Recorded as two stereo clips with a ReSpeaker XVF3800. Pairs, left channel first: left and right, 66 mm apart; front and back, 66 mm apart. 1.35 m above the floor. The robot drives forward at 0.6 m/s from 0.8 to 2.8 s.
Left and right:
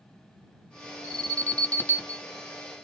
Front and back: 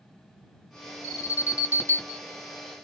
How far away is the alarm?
About 1.7 m.